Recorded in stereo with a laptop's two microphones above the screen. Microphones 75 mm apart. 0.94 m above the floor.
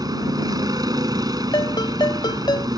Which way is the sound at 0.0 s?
60° right (ahead or behind).